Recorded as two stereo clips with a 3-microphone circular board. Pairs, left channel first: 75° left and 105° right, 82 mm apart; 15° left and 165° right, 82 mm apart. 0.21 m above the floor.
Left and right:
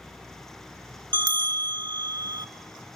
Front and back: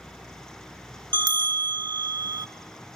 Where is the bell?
135° right, 0.6 m.